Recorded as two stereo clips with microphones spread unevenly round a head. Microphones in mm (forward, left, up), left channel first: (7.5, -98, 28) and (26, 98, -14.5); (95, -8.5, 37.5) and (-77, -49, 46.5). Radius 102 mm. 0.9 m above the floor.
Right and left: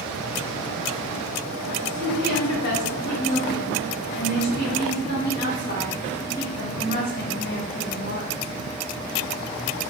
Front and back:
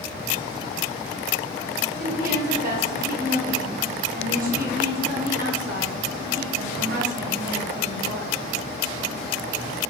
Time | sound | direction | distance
1.9 | a woman speaking | 140° right | 1.5 m